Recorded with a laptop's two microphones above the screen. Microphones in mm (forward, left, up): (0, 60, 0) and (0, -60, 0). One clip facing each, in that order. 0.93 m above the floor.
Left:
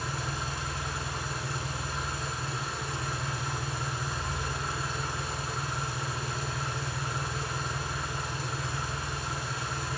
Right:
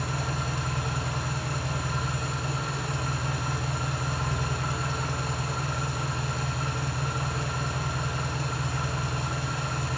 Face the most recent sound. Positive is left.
turn(degrees=-60)  # may be behind; listen again after turning